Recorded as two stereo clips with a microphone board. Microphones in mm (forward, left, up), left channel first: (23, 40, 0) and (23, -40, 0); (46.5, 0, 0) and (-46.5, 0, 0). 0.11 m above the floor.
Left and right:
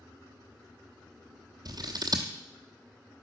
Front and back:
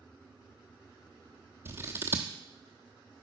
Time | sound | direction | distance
1.6 | scissors | 120° right | 0.8 m